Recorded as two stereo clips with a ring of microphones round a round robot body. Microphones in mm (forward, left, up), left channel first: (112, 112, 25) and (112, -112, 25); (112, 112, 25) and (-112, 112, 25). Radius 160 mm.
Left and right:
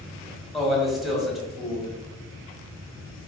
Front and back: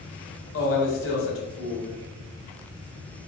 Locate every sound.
0.5 s a man speaking: straight ahead, 1.6 m